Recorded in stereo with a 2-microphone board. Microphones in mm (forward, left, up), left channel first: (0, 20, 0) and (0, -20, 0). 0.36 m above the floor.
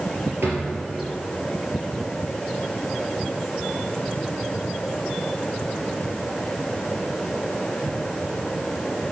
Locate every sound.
0.4 s a drawer: 80° right, 3.5 m